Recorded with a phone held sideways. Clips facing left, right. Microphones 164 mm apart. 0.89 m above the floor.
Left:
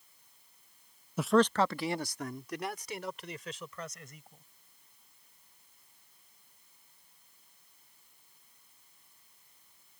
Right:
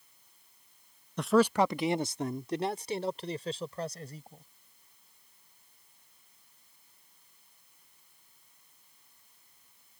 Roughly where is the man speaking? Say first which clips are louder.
Right 1 dB; centre.